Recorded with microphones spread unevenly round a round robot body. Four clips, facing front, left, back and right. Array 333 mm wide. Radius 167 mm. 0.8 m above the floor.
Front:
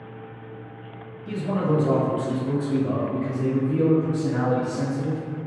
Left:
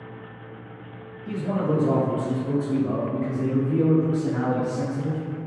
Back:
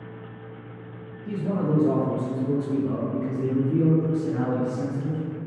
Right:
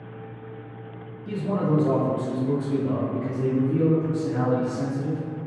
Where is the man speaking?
155° right, 1.2 m; by 5.2 s 30° left, 1.6 m.